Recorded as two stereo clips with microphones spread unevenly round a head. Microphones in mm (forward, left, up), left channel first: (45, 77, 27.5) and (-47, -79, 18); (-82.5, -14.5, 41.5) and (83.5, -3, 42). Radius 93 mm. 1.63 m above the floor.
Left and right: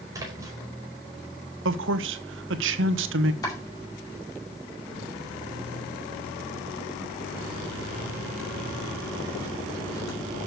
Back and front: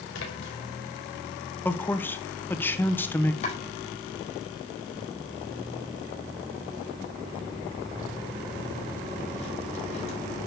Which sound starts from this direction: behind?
A splash, at 0.1 s.